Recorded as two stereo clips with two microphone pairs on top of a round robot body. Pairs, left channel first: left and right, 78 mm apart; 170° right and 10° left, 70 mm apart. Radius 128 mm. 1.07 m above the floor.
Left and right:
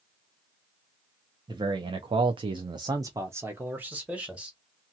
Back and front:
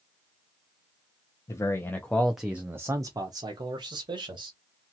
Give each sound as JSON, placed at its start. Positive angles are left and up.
{"t": 1.5, "sound": "a man speaking", "azimuth_deg": -125, "distance_m": 0.7}